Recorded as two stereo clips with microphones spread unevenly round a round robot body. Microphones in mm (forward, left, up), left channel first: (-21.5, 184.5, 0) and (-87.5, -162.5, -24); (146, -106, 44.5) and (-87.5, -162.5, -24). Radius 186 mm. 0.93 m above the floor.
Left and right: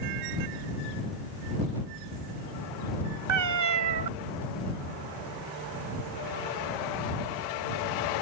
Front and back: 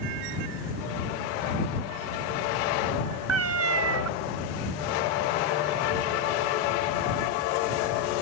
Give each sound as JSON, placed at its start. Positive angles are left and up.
{"t": 3.3, "sound": "a cat meowing", "azimuth_deg": -140}